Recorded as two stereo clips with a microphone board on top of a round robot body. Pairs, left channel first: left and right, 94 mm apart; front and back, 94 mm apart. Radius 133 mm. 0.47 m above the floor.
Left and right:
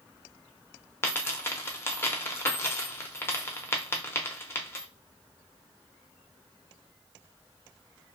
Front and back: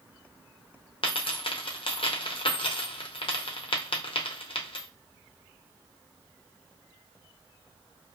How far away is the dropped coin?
About 0.7 m.